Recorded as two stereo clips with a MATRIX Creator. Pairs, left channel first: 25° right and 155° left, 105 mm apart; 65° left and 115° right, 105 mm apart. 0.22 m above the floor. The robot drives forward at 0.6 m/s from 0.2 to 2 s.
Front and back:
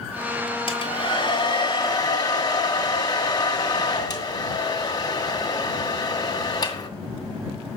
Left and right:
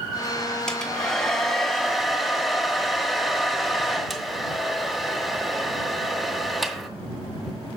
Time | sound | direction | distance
0.7 | a hair dryer | 15° right | 2.5 m